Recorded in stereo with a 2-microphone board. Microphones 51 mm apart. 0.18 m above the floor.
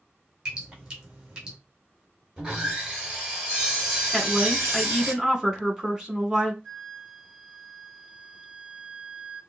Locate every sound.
0.5 s dripping: 15° right (ahead or behind), 3 m
2.4 s sawing: 15° right (ahead or behind), 3.5 m
4.1 s a woman speaking: 10° right (ahead or behind), 2 m
6.6 s a flute: 15° right (ahead or behind), 3.5 m